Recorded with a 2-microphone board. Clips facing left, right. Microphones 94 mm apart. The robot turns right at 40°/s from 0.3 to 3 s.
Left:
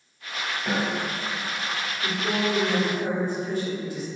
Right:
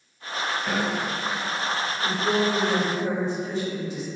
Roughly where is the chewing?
No chewing in this recording.